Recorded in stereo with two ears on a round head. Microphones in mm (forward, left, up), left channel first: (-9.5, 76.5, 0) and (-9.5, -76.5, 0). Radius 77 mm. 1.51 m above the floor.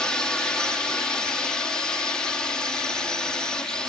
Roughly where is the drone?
Centre.